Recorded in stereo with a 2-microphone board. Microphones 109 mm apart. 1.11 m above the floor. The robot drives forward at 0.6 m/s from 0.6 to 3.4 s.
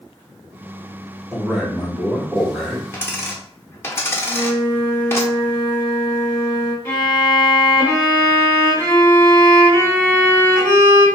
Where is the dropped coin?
20° left (ahead or behind), 0.8 m; by 5.2 s 25° left (ahead or behind), 0.7 m.